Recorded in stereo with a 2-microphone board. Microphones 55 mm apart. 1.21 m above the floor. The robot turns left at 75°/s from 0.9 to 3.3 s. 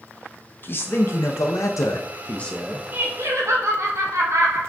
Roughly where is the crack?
No crack in this recording.